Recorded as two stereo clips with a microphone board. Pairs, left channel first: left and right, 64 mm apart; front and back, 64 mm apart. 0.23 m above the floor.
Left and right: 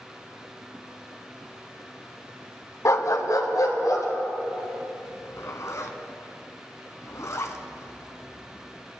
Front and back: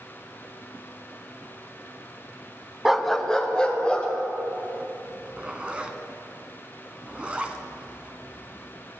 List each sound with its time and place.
2.9 s a dog barking: 100° left, 0.5 m; by 4.1 s 75° left, 2 m
5.0 s a zipper: 110° left, 0.9 m